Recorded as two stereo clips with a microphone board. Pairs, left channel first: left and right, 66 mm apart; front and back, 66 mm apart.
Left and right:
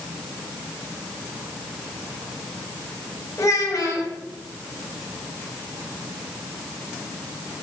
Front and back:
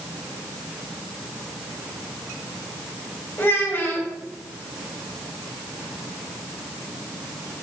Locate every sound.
3.4 s a child speaking: 50° left, 1.7 m